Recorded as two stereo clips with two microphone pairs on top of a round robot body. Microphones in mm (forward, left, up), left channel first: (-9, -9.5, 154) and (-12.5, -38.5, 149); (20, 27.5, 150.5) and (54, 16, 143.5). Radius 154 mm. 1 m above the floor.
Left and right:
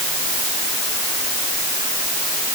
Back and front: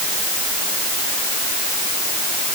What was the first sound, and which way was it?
Only background noise.